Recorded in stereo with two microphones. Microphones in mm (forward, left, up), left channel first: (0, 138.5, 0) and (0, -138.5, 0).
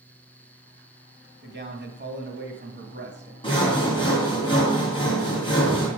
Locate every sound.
1.4 s a man speaking: 40° right (ahead or behind), 1.6 m
3.4 s sawing: 15° left (ahead or behind), 3 m